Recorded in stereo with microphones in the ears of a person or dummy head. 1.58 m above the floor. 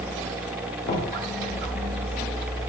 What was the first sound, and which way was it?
Knocking, 50° left (ahead or behind).